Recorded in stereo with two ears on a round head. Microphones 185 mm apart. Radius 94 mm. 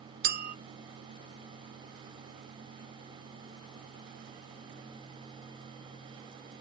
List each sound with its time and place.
0.2 s a clink: 50° right (ahead or behind), 0.6 m